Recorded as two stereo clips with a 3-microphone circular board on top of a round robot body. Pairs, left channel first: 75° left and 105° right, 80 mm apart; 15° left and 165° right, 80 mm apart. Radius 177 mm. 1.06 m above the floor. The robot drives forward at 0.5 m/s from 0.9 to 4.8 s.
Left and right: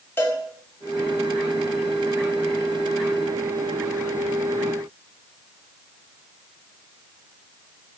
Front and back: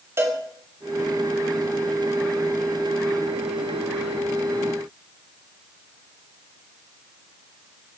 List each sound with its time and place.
0.2 s a cowbell: 140° left, 2 m